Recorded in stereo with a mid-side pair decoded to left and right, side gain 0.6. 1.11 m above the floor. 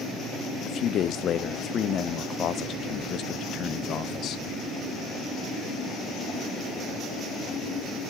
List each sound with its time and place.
0.7 s a man speaking: 50° left, 0.6 m